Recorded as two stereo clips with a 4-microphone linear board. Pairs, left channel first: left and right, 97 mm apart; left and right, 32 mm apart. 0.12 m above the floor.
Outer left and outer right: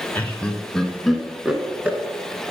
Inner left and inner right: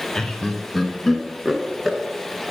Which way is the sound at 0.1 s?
20° left (ahead or behind).